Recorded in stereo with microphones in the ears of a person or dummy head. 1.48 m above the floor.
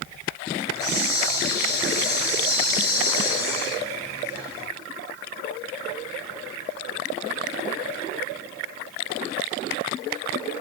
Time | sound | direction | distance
0.6 | a hiss | 20° left (ahead or behind) | 3.5 m